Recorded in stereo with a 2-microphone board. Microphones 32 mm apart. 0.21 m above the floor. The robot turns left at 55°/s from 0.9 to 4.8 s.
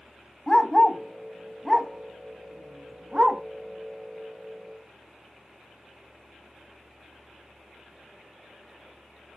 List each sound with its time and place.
0.5 s a dog barking: 15° left (ahead or behind), 0.6 m; by 3.4 s 35° right (ahead or behind), 0.6 m